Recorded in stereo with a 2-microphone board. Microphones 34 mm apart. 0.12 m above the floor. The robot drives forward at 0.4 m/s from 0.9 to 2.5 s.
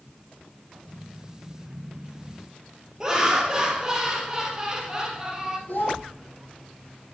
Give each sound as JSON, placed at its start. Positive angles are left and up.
{"t": 3.0, "sound": "laughter", "side_deg": -15, "distance_m": 2.5}
{"t": 5.7, "sound": "a child speaking", "side_deg": 75, "distance_m": 3.0}